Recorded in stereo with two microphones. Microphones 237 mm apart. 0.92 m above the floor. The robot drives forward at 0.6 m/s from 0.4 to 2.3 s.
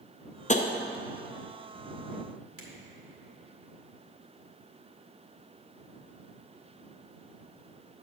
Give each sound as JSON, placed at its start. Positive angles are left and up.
{"t": 0.5, "sound": "tapping", "side_deg": 35, "distance_m": 0.5}
{"t": 2.6, "sound": "a finger snap", "side_deg": -80, "distance_m": 1.7}